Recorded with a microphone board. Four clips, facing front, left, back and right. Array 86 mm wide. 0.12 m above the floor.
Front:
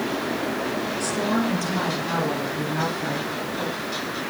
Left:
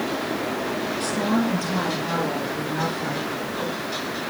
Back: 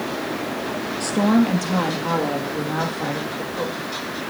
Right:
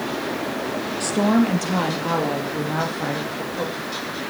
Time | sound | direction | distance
1.0 | a woman speaking | 135° right | 2 m